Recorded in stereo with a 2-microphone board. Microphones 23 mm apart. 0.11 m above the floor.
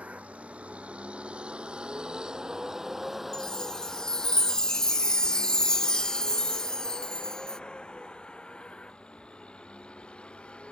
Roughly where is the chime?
Left.